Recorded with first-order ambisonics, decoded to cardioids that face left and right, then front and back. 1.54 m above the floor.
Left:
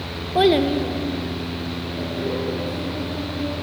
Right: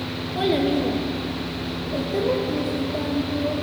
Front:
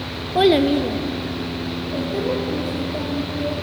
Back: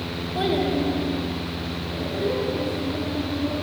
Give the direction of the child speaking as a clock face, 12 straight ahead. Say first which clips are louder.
Left 5 dB, front 8 dB; 10 o'clock.